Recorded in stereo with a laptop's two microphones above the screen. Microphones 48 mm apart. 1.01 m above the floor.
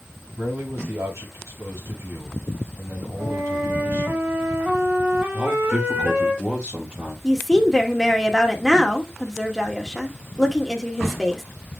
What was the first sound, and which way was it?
A man speaking, 60° right (ahead or behind).